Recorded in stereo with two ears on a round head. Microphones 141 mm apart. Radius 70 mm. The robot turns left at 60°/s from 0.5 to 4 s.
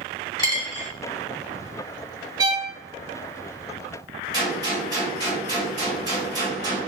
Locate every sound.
0.4 s a dropped coin: 25° left (ahead or behind), 1.2 m; by 0.9 s 45° left (ahead or behind), 1.2 m
2.4 s a violin: 25° right (ahead or behind), 1.0 m; by 2.7 s 30° right (ahead or behind), 1.0 m
4.3 s a gunshot: 25° right (ahead or behind), 1.6 m